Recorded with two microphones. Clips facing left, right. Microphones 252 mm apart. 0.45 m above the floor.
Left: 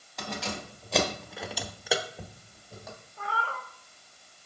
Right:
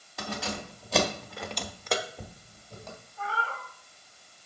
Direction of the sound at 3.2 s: 65° left (ahead or behind).